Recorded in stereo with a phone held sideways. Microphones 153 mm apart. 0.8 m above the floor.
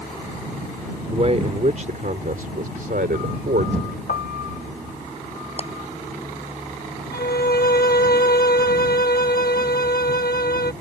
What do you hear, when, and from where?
1.1 s a man speaking: 40° right (ahead or behind); by 4.0 s 70° right (ahead or behind)
4.1 s a piano: 75° left (ahead or behind)
5.6 s a clap: 45° left (ahead or behind)
7.1 s a violin: 75° left (ahead or behind)